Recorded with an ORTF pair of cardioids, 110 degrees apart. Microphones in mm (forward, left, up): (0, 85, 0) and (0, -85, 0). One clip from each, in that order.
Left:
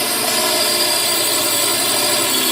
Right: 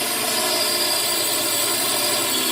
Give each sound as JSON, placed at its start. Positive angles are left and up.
{"t": 0.0, "sound": "a drone", "azimuth_deg": 25}